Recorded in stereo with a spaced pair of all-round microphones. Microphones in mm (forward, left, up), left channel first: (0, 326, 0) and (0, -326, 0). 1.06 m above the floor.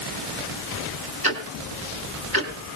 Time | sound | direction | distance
1.2 | ticking | 35° right (ahead or behind) | 3.5 m